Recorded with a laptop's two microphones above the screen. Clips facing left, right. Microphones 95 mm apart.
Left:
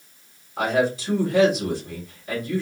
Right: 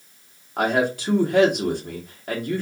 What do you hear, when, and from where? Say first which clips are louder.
0.6 s a man speaking: even; 60° right (ahead or behind), 1.4 m